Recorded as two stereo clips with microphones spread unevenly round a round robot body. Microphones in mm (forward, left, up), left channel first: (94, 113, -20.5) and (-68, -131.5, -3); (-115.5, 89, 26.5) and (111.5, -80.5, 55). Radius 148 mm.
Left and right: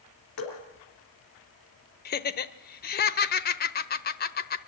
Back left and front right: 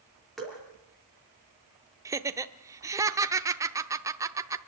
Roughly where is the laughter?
Ahead left.